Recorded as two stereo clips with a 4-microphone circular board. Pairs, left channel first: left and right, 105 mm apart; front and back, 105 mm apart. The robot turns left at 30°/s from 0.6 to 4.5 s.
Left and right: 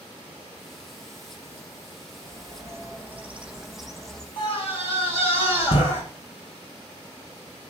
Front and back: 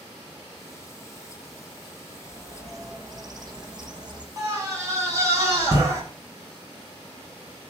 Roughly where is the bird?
Behind right.